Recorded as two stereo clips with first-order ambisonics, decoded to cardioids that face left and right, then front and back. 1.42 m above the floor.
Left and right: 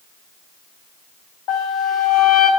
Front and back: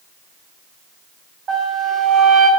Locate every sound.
1.5 s a flute: 125° left, 4.5 m